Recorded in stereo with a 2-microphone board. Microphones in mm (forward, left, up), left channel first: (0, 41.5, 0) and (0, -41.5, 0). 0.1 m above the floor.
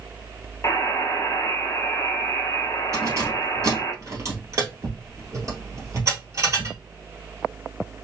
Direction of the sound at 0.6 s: 40° left (ahead or behind).